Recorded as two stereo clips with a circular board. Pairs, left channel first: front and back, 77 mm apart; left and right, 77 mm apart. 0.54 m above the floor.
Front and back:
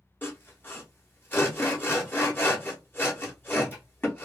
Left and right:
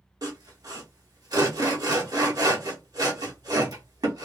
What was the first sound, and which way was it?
Sawing, 65° right.